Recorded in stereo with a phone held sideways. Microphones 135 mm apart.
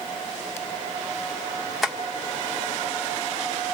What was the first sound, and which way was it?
Tapping, centre (ahead or behind).